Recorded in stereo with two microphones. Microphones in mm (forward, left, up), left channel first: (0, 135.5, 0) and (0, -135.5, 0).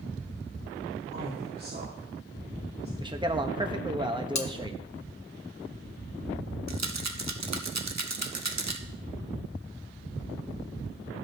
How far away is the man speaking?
About 0.9 m.